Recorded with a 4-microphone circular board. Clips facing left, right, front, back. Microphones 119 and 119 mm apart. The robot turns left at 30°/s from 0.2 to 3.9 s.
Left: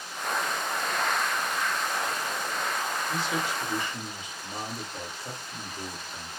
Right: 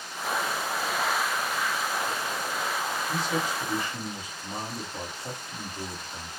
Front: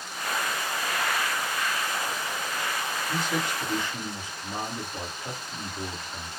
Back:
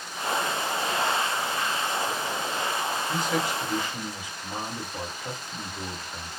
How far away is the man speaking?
About 1.5 m.